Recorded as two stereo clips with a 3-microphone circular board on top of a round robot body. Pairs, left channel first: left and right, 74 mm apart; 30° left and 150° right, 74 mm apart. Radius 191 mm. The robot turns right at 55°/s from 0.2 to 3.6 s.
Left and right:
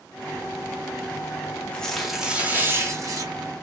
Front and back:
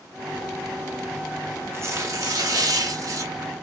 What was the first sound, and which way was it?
Tearing paper, 160° left.